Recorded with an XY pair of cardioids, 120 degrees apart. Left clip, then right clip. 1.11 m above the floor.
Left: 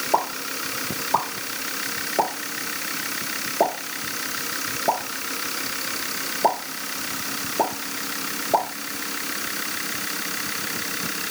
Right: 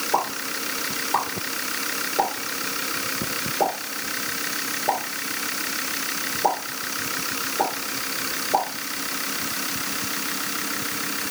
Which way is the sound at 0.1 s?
30° left.